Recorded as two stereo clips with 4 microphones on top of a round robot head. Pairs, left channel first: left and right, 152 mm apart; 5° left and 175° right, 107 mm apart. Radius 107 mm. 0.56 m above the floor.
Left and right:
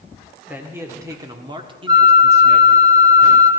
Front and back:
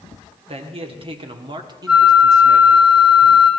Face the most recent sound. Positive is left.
turn(degrees=-95)